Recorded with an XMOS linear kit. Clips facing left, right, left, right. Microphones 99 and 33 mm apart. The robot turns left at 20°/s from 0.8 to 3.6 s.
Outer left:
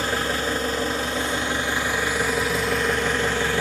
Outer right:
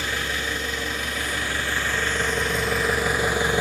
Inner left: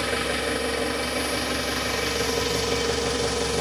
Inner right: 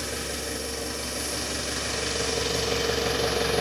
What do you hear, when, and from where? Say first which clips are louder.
0.0 s an engine running: outer left 4 dB, inner left 7 dB; 35° left, 1.1 m; by 3.6 s 20° right, 1.1 m